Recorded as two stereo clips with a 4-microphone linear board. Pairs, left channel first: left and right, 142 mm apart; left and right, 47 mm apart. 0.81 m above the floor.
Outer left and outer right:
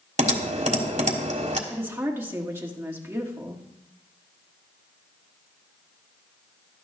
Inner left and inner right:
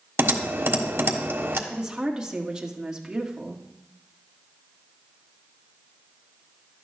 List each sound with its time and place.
0.2 s typing on a keyboard: 60° right (ahead or behind), 1.4 m
1.7 s a woman speaking: 15° right (ahead or behind), 1.7 m